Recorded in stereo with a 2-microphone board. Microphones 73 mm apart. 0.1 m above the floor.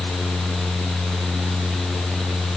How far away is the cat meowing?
I don't hear a cat meowing.